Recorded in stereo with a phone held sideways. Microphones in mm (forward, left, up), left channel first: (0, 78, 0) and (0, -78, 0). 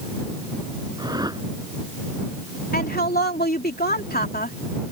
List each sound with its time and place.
1.0 s a whoosh: 25° right (ahead or behind)
2.7 s a woman speaking: 80° left